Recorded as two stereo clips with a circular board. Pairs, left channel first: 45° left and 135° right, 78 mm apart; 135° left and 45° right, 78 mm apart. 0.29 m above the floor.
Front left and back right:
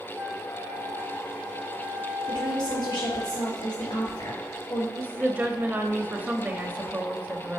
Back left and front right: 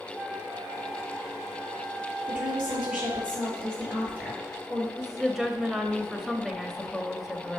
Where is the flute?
110° right, 1.0 m.